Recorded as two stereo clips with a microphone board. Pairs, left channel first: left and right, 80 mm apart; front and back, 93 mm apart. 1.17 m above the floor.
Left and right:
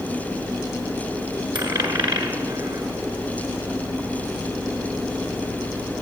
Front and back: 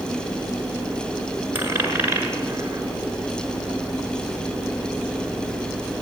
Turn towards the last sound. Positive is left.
turn(degrees=-110)